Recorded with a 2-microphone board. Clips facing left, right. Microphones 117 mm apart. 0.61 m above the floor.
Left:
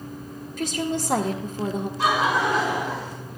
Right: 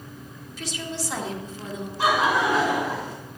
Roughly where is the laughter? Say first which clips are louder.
Right 1 dB; centre.